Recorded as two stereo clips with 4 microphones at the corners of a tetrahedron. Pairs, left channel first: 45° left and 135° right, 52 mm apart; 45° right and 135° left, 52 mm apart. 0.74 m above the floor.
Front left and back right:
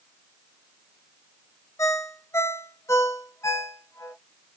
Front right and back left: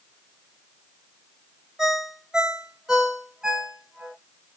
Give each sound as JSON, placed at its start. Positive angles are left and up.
{"t": 1.8, "sound": "a ringtone", "azimuth_deg": 55, "distance_m": 0.7}